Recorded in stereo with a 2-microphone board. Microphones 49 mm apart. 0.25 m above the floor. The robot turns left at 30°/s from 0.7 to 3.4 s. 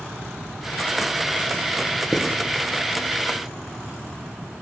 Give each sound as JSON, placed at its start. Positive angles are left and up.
{"t": 2.1, "sound": "writing", "side_deg": 0, "distance_m": 2.0}